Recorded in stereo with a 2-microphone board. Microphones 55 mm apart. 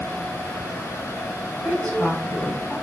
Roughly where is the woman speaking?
Centre.